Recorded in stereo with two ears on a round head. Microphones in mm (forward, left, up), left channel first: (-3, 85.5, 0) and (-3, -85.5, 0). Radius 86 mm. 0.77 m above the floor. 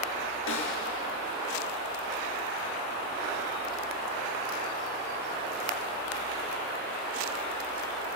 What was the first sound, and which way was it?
A snare drum, 80° left.